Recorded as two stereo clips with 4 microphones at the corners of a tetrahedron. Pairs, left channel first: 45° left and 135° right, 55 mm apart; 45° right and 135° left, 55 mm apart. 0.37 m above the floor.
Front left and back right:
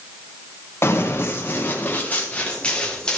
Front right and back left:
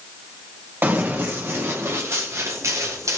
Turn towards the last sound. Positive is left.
turn(degrees=120)